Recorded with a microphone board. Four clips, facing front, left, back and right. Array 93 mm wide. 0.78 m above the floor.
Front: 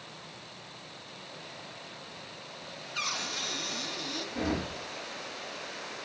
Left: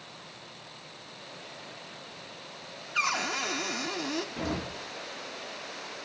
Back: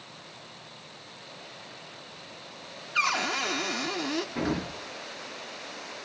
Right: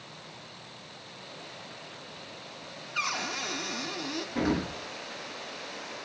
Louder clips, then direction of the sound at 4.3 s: Right 5 dB, back 2 dB; 100° right.